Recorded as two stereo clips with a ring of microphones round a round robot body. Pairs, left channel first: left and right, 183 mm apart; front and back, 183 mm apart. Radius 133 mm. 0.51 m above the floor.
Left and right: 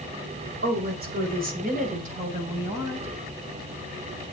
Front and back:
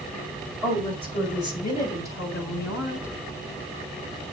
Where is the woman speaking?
80° right, 2.5 m; by 3.1 s 35° right, 4 m.